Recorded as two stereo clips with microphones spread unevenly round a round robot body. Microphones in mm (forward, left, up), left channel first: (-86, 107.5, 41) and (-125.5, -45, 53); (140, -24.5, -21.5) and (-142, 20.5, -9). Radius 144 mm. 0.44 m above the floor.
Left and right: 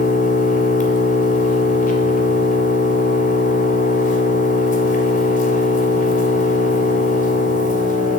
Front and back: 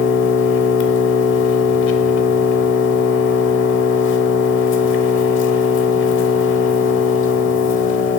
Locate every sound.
0.0 s an engine running: 40° left, 0.9 m